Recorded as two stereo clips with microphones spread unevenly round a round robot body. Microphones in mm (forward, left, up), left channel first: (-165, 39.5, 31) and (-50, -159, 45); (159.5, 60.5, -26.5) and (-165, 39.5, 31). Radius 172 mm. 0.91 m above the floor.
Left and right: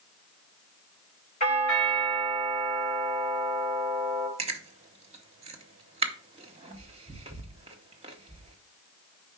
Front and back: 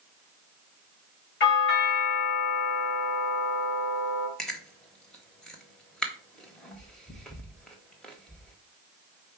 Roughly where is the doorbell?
Ahead left.